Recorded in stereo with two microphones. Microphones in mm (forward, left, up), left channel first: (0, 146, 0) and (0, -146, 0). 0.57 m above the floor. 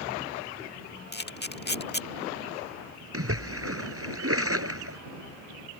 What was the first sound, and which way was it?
A camera shutter, 35° left (ahead or behind).